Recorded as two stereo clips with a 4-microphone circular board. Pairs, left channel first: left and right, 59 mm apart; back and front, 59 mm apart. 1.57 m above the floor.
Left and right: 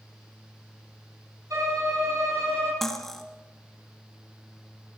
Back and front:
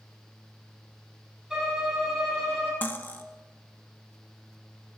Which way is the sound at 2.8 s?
170° left.